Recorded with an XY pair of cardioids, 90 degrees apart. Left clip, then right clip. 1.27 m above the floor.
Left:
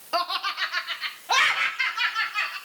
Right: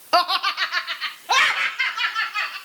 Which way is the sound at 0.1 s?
65° right.